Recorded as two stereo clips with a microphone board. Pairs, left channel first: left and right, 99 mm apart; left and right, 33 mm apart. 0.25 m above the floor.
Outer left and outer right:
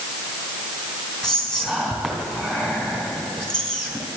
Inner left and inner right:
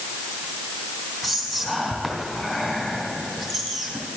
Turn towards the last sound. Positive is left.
turn(degrees=5)  # may be behind; listen again after turning